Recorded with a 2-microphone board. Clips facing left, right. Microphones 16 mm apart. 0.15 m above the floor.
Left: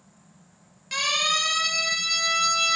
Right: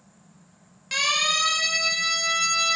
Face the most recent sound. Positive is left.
turn(degrees=10)  # may be behind; listen again after turning